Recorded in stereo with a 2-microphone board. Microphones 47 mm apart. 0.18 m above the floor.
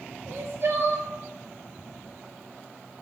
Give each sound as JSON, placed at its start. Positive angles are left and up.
{"t": 0.3, "sound": "crying", "side_deg": -55, "distance_m": 0.5}